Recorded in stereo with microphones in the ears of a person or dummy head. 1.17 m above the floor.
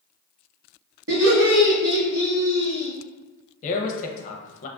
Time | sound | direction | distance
1.1 | laughter | 70° right (ahead or behind) | 0.9 m
3.6 | a man speaking | 40° left (ahead or behind) | 0.5 m